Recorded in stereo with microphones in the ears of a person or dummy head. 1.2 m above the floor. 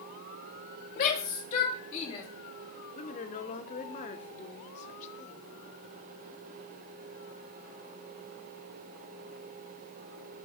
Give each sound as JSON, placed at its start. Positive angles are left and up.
{"t": 1.0, "sound": "a shout", "side_deg": 40, "distance_m": 1.9}
{"t": 3.0, "sound": "a woman speaking", "side_deg": 40, "distance_m": 2.0}